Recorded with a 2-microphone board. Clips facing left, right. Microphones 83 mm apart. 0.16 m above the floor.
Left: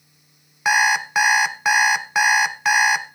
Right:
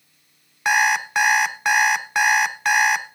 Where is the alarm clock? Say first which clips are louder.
Left 1 dB; 5° left (ahead or behind), 0.7 m.